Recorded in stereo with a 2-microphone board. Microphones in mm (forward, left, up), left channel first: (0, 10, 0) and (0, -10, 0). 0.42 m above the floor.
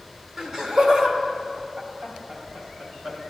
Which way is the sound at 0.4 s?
20° right (ahead or behind).